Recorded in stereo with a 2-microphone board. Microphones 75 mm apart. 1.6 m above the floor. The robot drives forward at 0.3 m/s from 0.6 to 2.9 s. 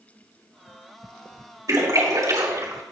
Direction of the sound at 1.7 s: 65° right (ahead or behind).